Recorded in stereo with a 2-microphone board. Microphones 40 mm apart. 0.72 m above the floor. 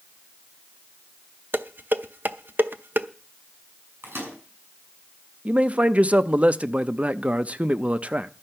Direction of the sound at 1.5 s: 60° right (ahead or behind).